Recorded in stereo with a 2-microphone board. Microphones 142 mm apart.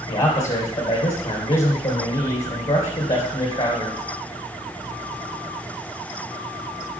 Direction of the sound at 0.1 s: 45° left (ahead or behind).